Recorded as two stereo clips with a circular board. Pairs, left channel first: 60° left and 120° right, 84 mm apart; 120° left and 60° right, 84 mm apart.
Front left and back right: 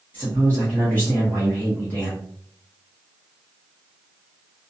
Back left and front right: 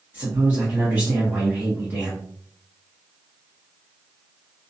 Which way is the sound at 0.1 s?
Straight ahead.